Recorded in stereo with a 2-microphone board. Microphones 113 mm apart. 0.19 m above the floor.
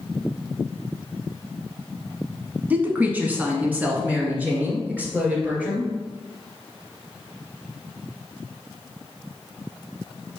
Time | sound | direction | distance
2.7 | a woman speaking | 15° right (ahead or behind) | 1.4 m